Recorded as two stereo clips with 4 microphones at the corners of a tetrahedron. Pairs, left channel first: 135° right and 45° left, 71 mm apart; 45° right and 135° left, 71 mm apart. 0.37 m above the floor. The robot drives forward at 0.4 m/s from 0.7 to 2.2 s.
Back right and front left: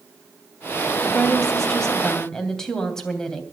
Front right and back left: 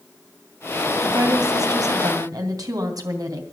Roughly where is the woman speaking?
Behind left.